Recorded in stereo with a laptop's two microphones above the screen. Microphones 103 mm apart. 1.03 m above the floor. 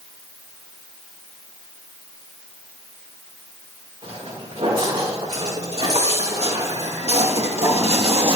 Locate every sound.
4.0 s footsteps: 75° right (ahead or behind), 6 m; by 8.4 s 50° right (ahead or behind), 1.9 m